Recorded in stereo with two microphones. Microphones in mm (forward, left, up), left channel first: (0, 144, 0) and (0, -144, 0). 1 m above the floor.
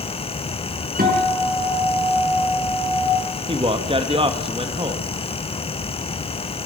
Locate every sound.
1.0 s a guitar: 30° right (ahead or behind), 6.5 m
3.5 s a man speaking: 20° right (ahead or behind), 1.8 m